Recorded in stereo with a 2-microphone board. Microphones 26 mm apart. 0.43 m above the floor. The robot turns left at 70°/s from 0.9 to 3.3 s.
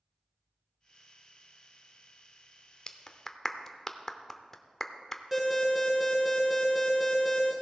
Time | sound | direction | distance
2.9 | a clap | 25° left (ahead or behind) | 0.8 m
5.3 | an alarm | 10° right (ahead or behind) | 3.5 m